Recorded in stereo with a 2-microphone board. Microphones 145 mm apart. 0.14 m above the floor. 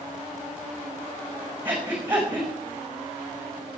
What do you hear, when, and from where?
1.6 s breathing: 10° right (ahead or behind), 5.5 m